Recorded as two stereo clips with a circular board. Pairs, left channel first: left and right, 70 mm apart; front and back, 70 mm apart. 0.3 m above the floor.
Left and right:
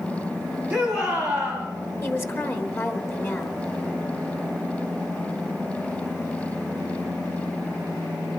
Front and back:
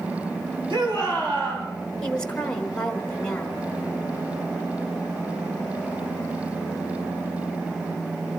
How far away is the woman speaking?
About 1.3 m.